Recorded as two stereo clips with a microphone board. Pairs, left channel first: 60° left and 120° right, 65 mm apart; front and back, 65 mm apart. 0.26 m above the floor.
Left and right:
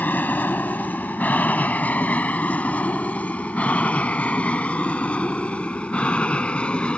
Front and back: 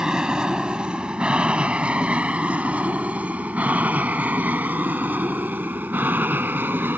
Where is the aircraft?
105° left; by 7.0 s 130° left.